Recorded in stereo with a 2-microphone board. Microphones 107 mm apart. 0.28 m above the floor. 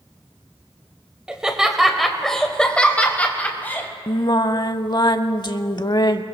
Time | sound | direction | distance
1.3 | laughter | 10° right (ahead or behind) | 1.1 m
4.1 | singing | 45° left (ahead or behind) | 0.5 m